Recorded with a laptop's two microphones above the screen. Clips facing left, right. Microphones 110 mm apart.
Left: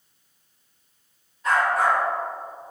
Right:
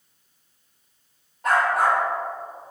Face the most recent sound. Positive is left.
turn(degrees=-55)  # may be behind; listen again after turning